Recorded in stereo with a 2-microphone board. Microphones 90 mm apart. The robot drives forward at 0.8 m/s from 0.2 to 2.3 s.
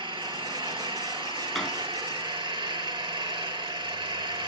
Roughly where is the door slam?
Centre.